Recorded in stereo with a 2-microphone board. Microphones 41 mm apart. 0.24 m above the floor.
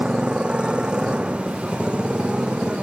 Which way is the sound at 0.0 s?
25° right (ahead or behind).